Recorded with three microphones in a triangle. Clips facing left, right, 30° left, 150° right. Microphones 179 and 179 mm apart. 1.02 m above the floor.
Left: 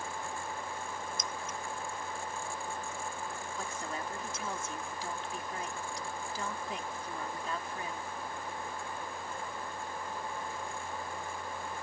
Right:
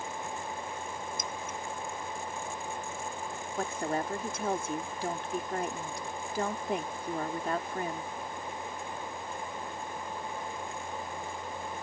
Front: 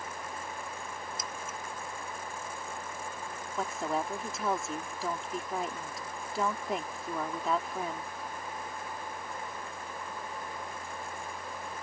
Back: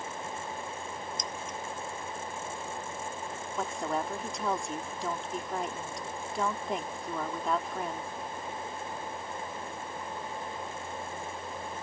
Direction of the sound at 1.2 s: 55° right.